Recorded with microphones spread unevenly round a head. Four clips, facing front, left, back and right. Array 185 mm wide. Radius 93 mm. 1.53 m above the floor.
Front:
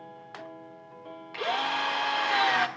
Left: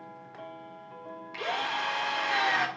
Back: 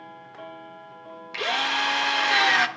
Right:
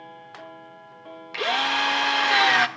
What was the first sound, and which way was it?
A drill, 115° right.